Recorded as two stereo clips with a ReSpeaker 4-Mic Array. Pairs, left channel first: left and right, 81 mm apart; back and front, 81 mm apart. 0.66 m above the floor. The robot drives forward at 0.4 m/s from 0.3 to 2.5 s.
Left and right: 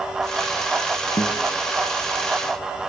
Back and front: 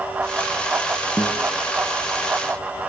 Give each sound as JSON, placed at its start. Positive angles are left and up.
{"t": 1.2, "sound": "a guitar", "azimuth_deg": 105, "distance_m": 2.5}